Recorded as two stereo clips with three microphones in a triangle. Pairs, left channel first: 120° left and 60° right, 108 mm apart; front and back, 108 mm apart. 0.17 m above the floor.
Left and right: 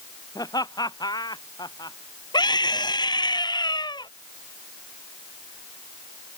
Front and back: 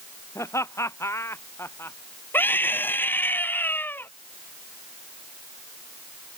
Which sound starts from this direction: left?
A scream, at 2.3 s.